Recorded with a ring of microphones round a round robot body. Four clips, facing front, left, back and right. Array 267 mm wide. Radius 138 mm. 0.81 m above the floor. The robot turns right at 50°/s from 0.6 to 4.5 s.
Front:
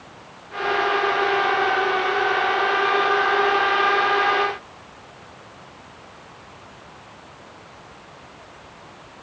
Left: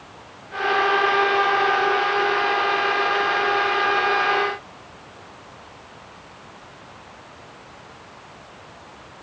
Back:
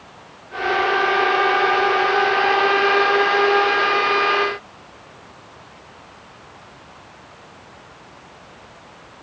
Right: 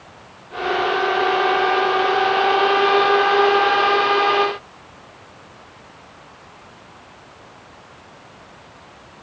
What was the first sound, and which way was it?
Only background noise.